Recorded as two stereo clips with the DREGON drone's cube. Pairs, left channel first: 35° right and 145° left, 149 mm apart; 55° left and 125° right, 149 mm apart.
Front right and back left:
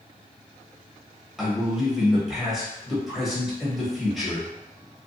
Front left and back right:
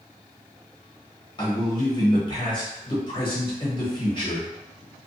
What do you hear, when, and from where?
1.4 s a man speaking: 60° left, 1.1 m